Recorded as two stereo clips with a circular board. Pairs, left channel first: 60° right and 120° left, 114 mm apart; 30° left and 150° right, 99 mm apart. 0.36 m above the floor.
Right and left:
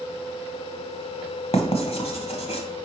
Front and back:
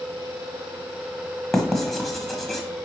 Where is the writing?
60° right, 1.2 m.